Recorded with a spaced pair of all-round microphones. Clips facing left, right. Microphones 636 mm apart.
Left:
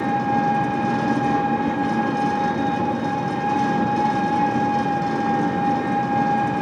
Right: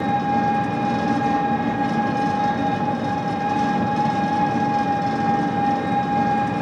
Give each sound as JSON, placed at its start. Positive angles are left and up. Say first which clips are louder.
{"t": 0.0, "sound": "an engine running", "louder": "even", "side_deg": -10, "distance_m": 1.0}